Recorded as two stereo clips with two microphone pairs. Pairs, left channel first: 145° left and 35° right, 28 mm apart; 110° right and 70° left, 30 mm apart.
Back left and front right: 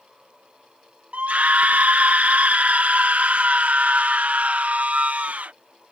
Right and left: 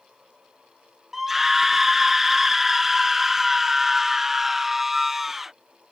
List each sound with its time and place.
1.1 s a scream: 10° right